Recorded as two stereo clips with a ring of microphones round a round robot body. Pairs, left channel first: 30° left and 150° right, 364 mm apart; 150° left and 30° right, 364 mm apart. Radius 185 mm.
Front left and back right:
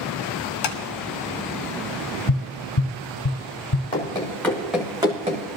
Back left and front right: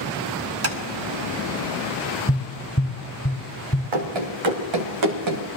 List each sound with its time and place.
0.6 s tapping: 20° left, 1.0 m
2.3 s tapping: 75° left, 2 m
3.9 s running footsteps: 45° right, 2.5 m; by 5.5 s 80° right, 1.7 m